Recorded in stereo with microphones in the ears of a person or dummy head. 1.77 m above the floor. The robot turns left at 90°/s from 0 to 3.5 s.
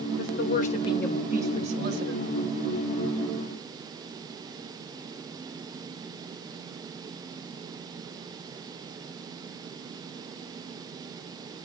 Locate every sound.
0.2 s a woman speaking: 95° left, 3 m; by 2.2 s 85° right, 3 m